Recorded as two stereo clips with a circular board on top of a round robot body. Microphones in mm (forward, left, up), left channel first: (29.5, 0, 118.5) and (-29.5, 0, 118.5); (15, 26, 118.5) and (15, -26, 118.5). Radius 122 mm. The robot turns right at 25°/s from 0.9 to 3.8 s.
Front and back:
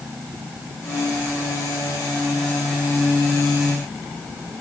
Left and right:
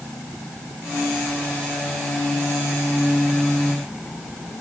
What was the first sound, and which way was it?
Only background noise.